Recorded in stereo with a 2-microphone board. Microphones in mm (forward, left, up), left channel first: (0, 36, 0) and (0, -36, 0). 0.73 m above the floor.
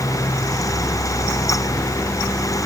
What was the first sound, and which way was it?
Only background noise.